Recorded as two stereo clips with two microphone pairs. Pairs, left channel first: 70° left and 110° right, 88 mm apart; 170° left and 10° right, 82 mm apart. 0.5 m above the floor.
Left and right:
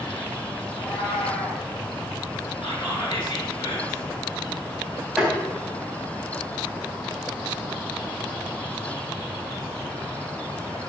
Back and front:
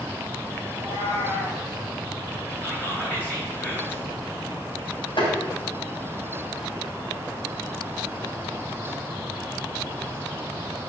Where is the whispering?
105° left, 7.5 m.